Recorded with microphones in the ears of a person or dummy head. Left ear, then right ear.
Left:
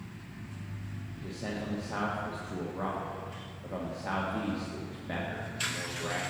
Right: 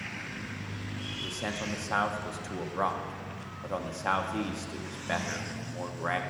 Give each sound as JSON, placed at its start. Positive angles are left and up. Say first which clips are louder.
{"t": 1.2, "sound": "a man speaking", "louder": "right 3 dB", "side_deg": -50, "distance_m": 0.7}